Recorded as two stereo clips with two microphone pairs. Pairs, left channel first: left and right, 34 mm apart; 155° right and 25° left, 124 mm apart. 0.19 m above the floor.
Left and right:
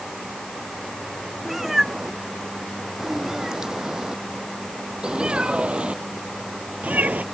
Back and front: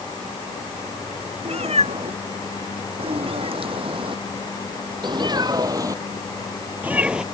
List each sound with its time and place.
1.4 s a cat meowing: 5° right; by 7.2 s 60° right